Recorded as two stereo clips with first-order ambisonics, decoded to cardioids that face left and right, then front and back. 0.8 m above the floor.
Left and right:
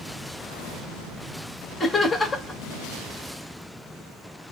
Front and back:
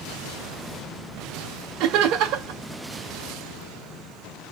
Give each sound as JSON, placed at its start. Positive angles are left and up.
{"t": 1.8, "sound": "laughter", "azimuth_deg": 170, "distance_m": 1.3}